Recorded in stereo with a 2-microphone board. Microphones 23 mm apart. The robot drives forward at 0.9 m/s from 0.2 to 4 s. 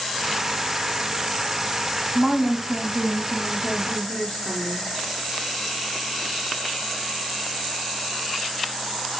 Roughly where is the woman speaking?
Centre.